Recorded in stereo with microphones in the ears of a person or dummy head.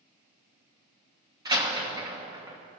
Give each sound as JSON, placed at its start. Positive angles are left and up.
{"t": 1.4, "sound": "a door slam", "side_deg": -20, "distance_m": 1.2}